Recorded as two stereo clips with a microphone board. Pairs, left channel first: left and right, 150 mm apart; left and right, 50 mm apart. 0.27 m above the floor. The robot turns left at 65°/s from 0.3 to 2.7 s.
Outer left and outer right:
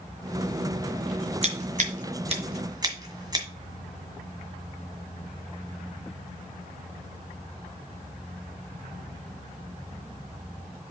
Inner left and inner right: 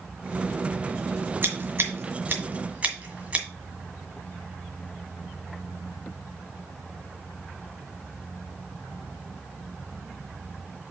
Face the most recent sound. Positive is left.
turn(degrees=-25)  # may be behind; listen again after turning